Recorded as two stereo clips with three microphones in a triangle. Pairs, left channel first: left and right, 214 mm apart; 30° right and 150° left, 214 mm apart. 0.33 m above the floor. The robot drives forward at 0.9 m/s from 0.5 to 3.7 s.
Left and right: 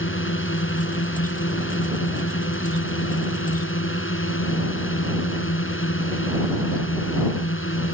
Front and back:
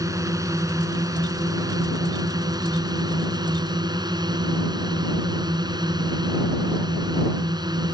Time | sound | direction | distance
0.0 | a drone | 75° left | ?